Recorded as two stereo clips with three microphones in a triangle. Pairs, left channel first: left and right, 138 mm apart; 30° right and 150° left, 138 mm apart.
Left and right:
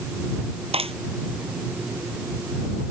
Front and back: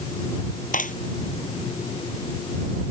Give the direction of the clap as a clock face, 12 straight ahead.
1 o'clock.